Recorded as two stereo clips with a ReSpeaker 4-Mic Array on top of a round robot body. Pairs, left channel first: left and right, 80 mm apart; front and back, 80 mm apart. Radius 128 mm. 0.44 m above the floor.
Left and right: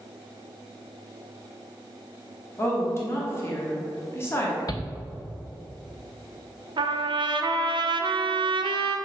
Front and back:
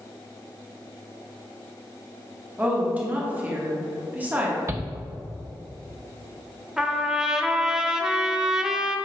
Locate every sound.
2.6 s a woman speaking: 120° left, 1.4 m
4.7 s a shout: 125° left, 2.5 m
6.8 s a trumpet: 100° right, 0.6 m